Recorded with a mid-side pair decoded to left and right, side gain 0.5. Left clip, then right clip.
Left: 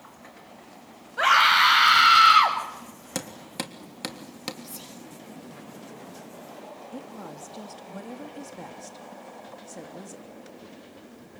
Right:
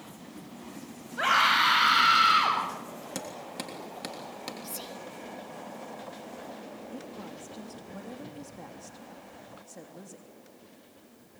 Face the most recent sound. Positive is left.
turn(degrees=35)